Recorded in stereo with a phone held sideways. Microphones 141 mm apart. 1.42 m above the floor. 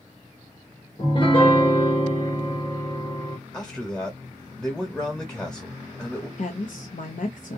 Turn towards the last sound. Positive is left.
turn(degrees=70)  # may be behind; listen again after turning